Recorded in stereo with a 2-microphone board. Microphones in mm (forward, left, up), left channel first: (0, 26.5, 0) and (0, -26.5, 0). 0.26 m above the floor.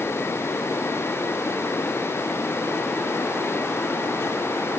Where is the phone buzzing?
No phone buzzing in this recording.